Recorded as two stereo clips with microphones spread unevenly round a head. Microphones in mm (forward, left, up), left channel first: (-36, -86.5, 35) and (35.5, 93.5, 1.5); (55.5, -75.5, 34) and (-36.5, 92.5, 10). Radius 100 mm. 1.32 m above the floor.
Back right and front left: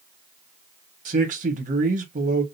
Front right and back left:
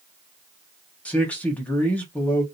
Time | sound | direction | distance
1.1 | a man speaking | 25° left | 1.5 m